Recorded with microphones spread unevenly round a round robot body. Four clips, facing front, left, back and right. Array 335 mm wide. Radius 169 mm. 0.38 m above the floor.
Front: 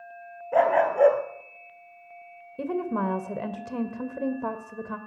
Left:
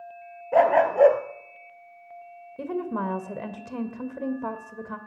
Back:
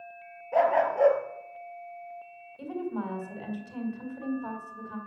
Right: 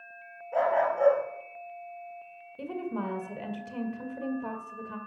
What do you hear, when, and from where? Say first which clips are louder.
0.5 s a dog barking: left 7 dB, front 3 dB; 70° left, 2 m
2.6 s a woman speaking: left 5 dB, front 6 dB; 20° left, 2 m